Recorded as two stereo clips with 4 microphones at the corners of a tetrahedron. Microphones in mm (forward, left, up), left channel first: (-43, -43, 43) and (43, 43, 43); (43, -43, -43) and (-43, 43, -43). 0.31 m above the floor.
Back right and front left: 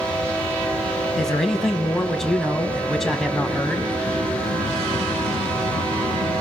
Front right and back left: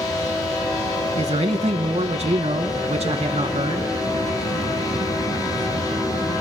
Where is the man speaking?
140° left, 2.5 m.